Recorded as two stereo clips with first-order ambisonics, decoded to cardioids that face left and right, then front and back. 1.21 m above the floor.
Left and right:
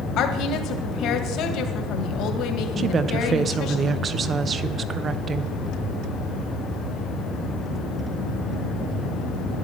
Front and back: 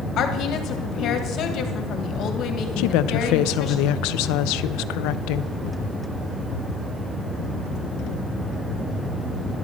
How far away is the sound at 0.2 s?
About 1.7 m.